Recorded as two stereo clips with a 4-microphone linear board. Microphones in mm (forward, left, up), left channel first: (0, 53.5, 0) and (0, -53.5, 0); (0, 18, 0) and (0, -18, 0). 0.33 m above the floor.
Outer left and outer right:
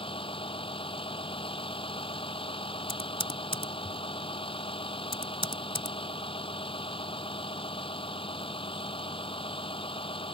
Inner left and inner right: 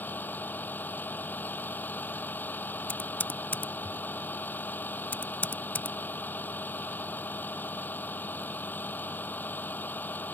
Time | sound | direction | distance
0.0 | a vehicle | 55° left (ahead or behind) | ?
2.9 | typing on a keyboard | 55° left (ahead or behind) | ?